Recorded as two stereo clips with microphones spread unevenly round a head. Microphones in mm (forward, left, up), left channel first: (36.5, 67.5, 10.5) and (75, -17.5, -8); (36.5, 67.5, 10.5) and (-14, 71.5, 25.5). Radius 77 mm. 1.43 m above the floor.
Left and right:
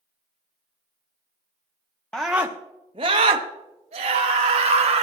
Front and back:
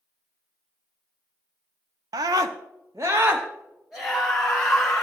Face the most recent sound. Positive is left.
turn(degrees=-80)